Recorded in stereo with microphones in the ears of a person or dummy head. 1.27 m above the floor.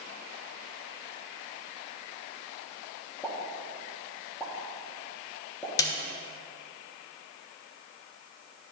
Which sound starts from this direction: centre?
A pop, at 3.2 s.